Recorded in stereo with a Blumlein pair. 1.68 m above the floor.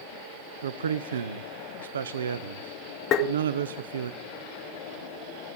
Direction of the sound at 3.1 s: 35° left.